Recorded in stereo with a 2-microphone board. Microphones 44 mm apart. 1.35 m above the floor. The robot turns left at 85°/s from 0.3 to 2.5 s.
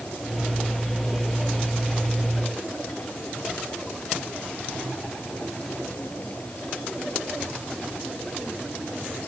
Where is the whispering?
No whispering in this recording.